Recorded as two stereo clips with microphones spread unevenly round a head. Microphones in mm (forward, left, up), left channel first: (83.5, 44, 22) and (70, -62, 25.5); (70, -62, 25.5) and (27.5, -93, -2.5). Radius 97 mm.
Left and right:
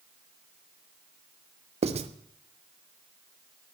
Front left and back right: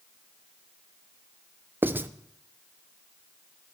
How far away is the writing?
About 0.6 m.